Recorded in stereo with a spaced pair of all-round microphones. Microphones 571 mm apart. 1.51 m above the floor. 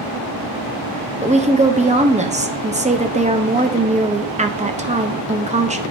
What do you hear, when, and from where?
1.2 s a woman speaking: 15° right (ahead or behind), 0.6 m